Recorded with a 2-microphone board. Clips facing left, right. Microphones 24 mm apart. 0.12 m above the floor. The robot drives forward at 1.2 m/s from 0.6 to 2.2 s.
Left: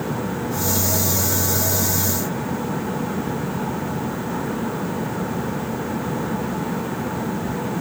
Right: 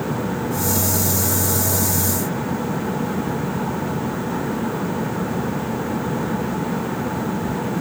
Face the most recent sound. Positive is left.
No sound to turn to.